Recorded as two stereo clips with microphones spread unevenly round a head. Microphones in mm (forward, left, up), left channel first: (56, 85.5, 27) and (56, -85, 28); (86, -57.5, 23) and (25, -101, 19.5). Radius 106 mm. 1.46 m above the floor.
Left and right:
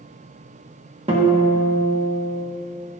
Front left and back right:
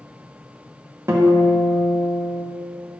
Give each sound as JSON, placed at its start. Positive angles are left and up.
{"t": 1.1, "sound": "a guitar", "azimuth_deg": -130, "distance_m": 0.9}